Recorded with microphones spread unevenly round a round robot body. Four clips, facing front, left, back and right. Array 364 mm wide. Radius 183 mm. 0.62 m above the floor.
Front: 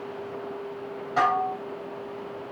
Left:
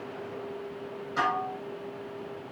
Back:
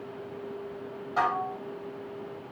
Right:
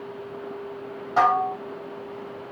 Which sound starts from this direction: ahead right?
Dishes clattering, at 1.2 s.